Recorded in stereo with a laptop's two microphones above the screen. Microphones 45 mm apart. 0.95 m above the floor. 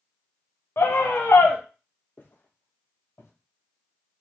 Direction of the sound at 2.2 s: 45° left (ahead or behind).